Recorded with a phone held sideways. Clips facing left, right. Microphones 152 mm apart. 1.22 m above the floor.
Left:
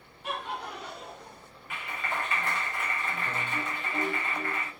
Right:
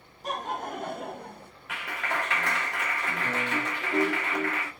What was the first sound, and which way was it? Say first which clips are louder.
Laughter: right 3 dB; 40° right (ahead or behind).